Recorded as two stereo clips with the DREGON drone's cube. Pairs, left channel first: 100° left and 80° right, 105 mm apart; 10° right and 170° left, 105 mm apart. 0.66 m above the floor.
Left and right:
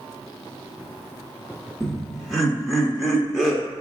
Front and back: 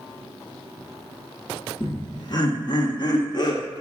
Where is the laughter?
10° left, 0.7 m.